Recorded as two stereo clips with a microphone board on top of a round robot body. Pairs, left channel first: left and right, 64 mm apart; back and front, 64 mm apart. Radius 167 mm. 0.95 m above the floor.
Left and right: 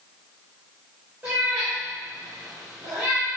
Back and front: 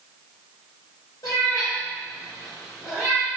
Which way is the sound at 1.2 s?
155° right.